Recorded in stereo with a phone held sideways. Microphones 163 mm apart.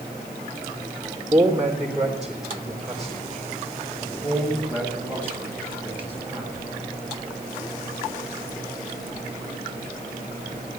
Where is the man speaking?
15° right (ahead or behind), 3 m; by 6.5 s 15° left (ahead or behind), 8 m.